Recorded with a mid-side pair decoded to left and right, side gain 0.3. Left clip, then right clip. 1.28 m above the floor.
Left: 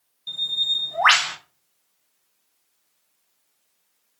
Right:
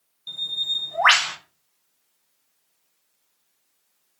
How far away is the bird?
About 0.9 m.